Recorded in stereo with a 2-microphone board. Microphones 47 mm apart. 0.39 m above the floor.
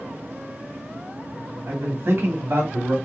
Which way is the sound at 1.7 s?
60° right (ahead or behind).